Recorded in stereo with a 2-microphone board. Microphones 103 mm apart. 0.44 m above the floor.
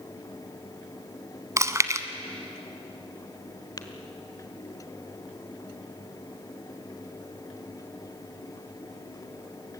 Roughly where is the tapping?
Left.